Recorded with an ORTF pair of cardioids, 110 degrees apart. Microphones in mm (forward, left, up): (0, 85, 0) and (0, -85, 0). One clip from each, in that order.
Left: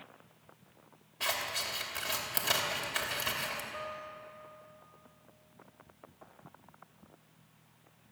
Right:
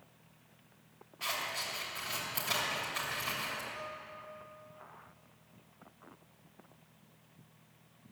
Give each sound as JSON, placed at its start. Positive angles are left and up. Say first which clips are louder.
{"t": 1.2, "sound": "scissors", "louder": "left 2 dB", "azimuth_deg": 65, "distance_m": 2.5}
{"t": 3.7, "sound": "a guitar", "louder": "left 2 dB", "azimuth_deg": 65, "distance_m": 3.5}